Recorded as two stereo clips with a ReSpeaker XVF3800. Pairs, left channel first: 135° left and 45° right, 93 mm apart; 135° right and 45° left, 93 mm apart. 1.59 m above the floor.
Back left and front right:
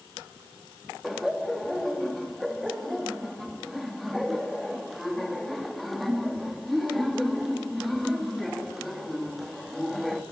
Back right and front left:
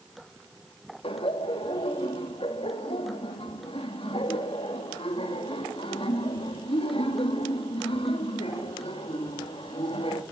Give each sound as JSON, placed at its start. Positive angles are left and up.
{"t": 1.0, "sound": "laughter", "azimuth_deg": -135, "distance_m": 2.5}